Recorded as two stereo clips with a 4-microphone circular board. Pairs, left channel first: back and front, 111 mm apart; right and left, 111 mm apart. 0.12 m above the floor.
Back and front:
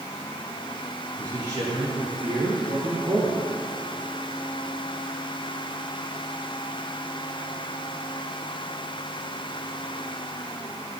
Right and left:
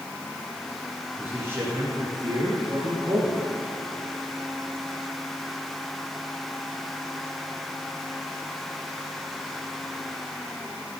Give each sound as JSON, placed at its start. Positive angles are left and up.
{"t": 1.2, "sound": "a man speaking", "azimuth_deg": 35, "distance_m": 2.0}